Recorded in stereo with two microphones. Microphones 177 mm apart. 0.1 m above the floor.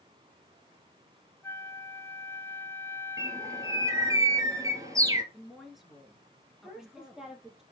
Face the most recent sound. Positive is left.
turn(degrees=-5)  # may be behind; listen again after turning